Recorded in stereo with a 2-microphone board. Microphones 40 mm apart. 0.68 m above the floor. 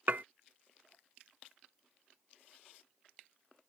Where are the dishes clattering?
45° right (ahead or behind).